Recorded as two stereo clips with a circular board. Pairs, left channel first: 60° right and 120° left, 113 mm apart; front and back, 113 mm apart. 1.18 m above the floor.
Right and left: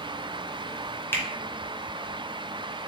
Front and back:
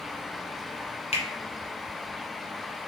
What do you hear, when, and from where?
1.1 s a finger snap: 10° left, 0.8 m